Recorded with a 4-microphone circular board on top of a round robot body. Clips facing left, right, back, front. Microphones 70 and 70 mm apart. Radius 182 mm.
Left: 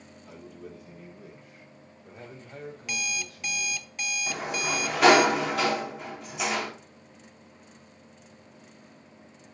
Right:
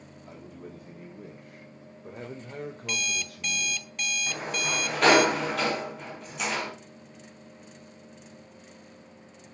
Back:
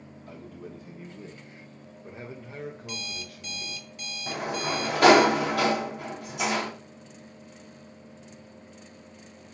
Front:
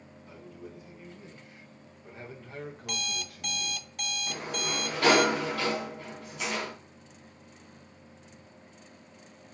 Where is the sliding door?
175° left, 3.5 m.